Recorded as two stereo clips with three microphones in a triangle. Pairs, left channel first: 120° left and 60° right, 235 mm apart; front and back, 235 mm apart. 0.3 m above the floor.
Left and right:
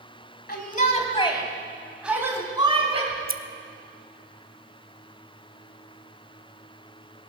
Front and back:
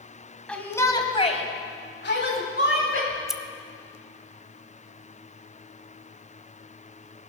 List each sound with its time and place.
0.5 s a shout: 85° left, 2 m; by 3.0 s straight ahead, 2.5 m
3.1 s scissors: 90° right, 0.6 m